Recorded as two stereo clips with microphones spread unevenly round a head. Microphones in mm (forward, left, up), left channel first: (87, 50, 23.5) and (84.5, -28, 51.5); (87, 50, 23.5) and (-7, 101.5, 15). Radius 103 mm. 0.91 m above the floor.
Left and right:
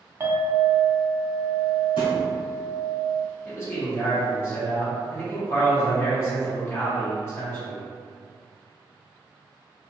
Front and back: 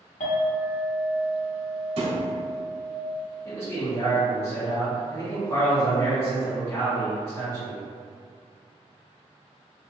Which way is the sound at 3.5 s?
40° left.